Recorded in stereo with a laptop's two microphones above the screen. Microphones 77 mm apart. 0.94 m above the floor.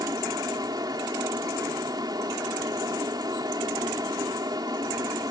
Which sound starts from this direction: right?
A fan, at 0.0 s.